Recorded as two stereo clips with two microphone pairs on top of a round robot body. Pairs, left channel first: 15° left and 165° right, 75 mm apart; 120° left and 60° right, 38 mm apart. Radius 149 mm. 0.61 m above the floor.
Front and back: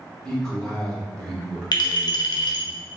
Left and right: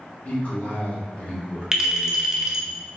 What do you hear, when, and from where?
0.2 s a man speaking: 90° left, 1.7 m
1.7 s a clink: 15° left, 0.8 m